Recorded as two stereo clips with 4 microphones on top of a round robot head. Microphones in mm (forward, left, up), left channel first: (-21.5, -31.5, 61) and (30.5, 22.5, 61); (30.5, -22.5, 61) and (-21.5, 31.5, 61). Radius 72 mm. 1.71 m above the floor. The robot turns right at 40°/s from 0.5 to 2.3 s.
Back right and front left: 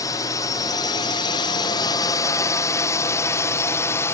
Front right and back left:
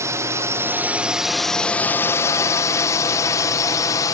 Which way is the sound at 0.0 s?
175° right.